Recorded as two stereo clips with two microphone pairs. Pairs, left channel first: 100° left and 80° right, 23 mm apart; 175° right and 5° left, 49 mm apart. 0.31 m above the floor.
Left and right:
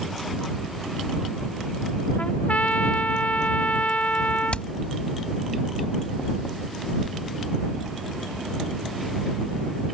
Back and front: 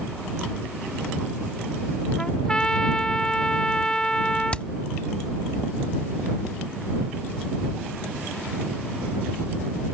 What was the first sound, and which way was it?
A trumpet, 110° left.